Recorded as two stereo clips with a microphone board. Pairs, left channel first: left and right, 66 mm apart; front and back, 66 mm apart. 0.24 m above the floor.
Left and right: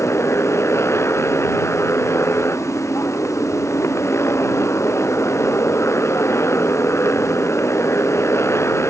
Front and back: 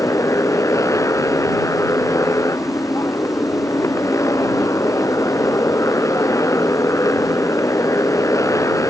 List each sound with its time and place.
0.0 s a motorcycle: 40° left